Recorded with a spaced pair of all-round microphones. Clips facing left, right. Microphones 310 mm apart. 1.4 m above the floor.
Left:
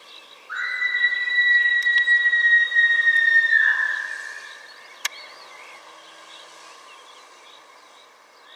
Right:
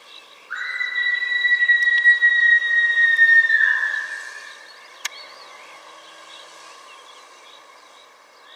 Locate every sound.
0.5 s a scream: 60° left (ahead or behind), 1.3 m